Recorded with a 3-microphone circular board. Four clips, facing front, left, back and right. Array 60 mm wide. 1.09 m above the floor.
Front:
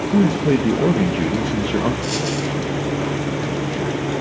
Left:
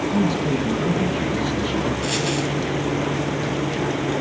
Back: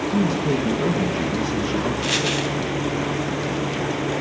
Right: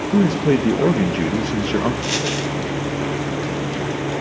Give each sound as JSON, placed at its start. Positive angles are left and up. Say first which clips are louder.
{"t": 0.1, "sound": "a man speaking", "louder": "right 7 dB, front 6 dB", "azimuth_deg": -60, "distance_m": 1.1}
{"t": 2.0, "sound": "a dropped coin", "louder": "even, even", "azimuth_deg": -155, "distance_m": 1.2}